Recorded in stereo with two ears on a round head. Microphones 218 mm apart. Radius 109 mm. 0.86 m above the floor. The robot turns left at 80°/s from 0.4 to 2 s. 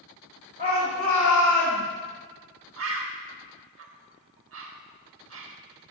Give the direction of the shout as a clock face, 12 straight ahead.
5 o'clock.